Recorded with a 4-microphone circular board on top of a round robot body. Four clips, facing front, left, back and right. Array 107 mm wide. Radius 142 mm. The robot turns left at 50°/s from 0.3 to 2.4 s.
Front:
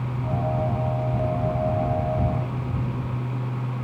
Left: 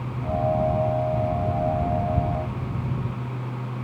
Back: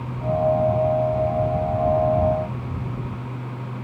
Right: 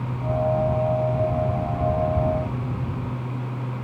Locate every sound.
Only background noise.